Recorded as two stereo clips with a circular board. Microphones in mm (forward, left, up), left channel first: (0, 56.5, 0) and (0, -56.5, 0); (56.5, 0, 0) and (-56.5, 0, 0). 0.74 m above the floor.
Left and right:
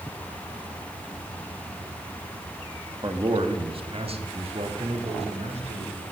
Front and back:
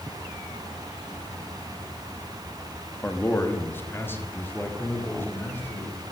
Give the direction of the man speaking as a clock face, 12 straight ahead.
2 o'clock.